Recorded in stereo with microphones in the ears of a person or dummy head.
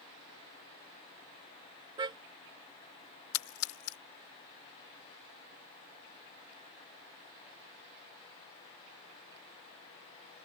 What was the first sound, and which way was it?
A car horn, 25° right (ahead or behind).